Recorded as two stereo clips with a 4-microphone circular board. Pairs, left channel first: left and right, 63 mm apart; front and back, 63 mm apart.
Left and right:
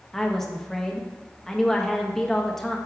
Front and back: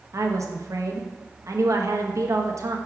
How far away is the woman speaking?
About 0.8 m.